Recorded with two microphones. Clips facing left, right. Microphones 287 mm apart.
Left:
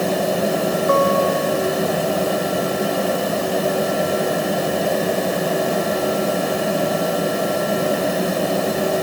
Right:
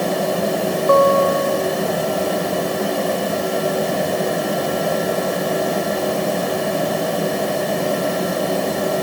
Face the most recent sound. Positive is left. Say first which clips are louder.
# right 5 dB
turn(degrees=-50)  # may be behind; listen again after turning